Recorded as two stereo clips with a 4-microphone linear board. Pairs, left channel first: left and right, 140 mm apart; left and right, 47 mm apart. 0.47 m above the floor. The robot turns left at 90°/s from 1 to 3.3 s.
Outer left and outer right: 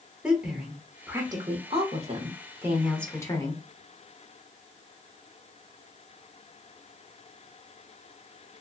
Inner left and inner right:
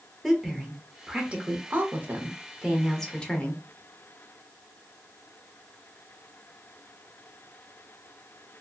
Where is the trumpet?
No trumpet in this recording.